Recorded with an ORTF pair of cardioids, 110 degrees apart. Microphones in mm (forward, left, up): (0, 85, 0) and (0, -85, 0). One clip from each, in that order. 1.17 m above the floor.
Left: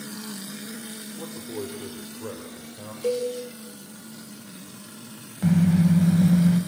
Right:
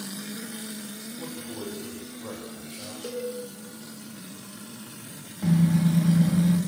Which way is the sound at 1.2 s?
30° left.